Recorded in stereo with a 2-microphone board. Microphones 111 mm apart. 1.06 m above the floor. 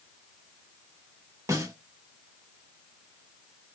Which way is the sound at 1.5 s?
30° right (ahead or behind).